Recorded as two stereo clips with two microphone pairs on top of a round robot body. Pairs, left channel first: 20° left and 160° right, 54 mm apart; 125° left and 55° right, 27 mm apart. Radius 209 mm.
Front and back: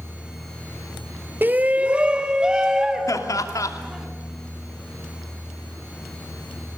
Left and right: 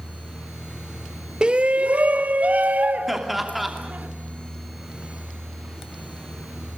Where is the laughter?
30° left, 3 m.